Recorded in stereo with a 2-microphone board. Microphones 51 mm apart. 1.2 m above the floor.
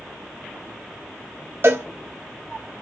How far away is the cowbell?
About 1.0 m.